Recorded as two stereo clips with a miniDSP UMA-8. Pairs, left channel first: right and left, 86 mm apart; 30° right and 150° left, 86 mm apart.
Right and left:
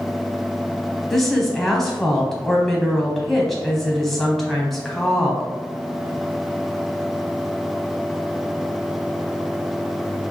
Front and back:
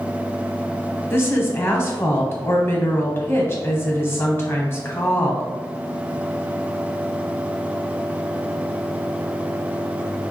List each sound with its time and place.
1.1 s a woman speaking: 5° right, 1.0 m